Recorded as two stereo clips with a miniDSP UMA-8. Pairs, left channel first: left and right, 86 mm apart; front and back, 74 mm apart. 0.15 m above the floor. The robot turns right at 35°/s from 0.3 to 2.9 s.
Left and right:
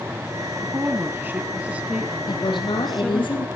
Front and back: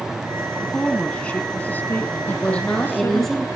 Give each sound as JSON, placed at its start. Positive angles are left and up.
{"t": 0.6, "sound": "a woman speaking", "azimuth_deg": -75, "distance_m": 1.6}
{"t": 2.3, "sound": "a woman speaking", "azimuth_deg": 65, "distance_m": 4.5}